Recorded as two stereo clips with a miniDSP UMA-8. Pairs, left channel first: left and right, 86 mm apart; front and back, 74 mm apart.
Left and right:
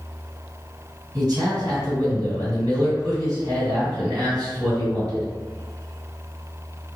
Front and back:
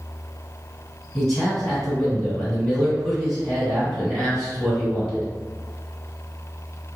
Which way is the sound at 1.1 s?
85° right.